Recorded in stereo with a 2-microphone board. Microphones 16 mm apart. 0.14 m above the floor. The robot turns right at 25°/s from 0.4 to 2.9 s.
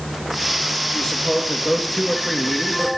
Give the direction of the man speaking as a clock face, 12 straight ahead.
8 o'clock.